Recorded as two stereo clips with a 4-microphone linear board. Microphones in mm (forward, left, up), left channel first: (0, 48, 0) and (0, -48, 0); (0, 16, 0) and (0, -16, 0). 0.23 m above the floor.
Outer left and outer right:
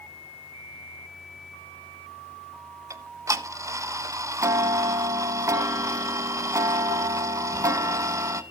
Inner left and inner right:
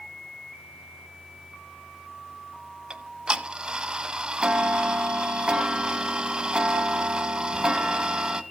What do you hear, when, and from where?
2.9 s ticking: 35° right (ahead or behind), 0.8 m